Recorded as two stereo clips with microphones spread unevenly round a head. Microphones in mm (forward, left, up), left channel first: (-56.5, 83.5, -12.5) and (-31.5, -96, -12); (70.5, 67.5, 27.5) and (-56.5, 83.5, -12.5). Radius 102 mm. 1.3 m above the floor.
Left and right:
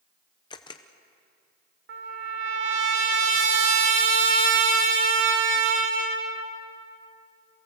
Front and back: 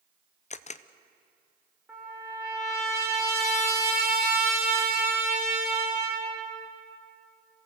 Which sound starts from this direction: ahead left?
A camera shutter, at 0.5 s.